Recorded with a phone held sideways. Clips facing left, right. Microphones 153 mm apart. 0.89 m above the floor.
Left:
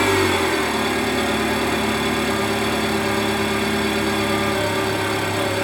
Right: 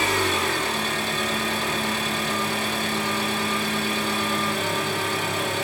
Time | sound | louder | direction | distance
0.0 | an engine running | left 7 dB | 65° left (ahead or behind) | 1.7 m